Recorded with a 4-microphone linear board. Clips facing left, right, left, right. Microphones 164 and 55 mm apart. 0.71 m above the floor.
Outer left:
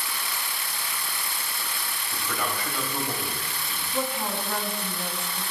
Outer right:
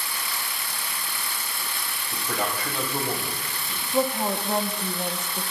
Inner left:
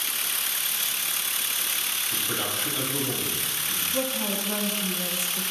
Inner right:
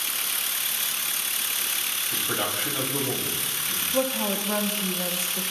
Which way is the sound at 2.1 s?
25° right (ahead or behind).